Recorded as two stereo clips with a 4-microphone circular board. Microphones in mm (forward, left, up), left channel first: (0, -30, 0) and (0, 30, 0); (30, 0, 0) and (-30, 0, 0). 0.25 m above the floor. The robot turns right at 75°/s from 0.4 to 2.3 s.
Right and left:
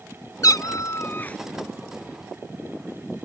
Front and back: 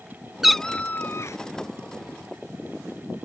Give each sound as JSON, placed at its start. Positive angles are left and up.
{"t": 0.4, "sound": "a cat meowing", "azimuth_deg": -95}